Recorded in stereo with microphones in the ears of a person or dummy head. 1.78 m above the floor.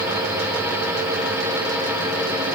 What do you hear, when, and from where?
Only background noise.